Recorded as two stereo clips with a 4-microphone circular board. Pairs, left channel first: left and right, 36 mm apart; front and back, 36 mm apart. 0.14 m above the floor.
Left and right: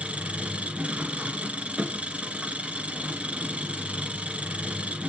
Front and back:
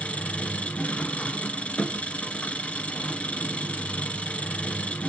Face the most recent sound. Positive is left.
turn(degrees=-45)